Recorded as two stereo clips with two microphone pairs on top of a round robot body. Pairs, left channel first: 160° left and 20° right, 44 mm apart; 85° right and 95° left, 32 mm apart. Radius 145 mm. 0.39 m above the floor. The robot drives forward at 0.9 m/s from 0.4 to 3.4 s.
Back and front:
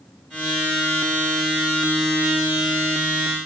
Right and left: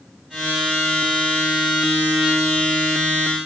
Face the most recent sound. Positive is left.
No sound to turn to.